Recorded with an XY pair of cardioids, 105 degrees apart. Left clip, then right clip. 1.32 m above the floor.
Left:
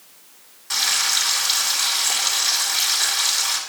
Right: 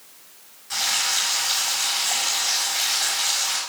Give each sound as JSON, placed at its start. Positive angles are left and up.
{"t": 0.7, "sound": "frying", "azimuth_deg": 60, "distance_m": 3.5}